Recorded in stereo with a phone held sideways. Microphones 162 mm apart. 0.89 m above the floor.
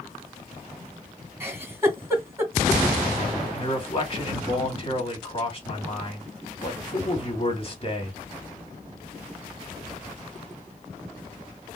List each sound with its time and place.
1.4 s a giggle: 15° right (ahead or behind), 1.9 m
3.5 s a man speaking: 35° left (ahead or behind), 2.5 m